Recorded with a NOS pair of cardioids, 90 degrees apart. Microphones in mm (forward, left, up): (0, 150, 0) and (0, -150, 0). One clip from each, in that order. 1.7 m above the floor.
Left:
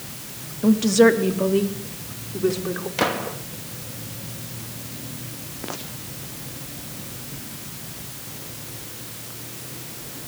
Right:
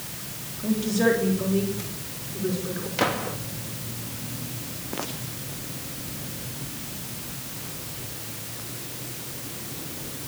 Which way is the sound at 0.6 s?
70° left.